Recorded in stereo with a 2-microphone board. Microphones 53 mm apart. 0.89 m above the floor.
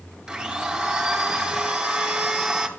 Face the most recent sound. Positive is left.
turn(degrees=-20)  # may be behind; listen again after turning